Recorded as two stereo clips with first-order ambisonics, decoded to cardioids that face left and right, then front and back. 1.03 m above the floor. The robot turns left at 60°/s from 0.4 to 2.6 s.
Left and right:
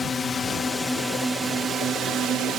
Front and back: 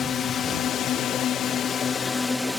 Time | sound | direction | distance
0.0 | a drone | 40° left | ?